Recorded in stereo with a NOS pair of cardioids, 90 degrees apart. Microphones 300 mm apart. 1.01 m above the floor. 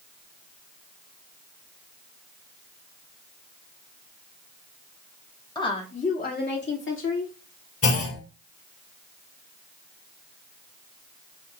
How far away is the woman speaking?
About 2.0 m.